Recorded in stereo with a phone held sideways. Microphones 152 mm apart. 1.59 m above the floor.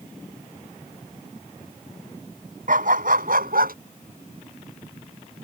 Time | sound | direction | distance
2.7 | a dog barking | 65° right (ahead or behind) | ?